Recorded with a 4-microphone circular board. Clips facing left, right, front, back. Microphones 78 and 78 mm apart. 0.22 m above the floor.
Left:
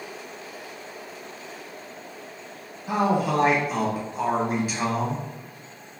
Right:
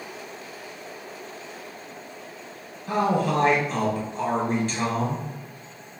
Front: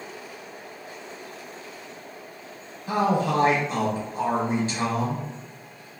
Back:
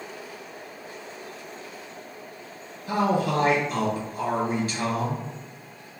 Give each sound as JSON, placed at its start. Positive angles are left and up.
{"t": 2.9, "sound": "a man speaking", "azimuth_deg": 20, "distance_m": 1.2}